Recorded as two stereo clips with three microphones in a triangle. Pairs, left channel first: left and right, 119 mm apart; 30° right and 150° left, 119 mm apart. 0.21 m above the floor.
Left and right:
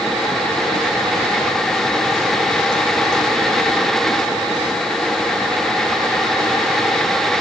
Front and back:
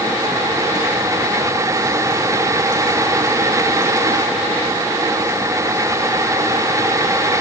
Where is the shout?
No shout in this recording.